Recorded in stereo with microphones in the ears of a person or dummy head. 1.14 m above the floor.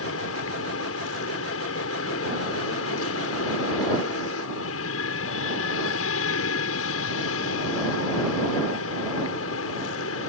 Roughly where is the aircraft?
Left.